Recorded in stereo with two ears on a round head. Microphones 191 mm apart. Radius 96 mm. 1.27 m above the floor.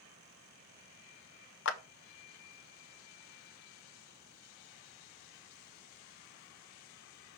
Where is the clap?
65° left (ahead or behind), 0.6 m.